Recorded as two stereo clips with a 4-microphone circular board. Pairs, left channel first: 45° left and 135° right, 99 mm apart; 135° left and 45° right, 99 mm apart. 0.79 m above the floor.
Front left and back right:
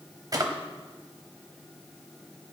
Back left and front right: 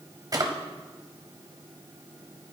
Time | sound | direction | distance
0.3 | a drawer | 90° right | 0.9 m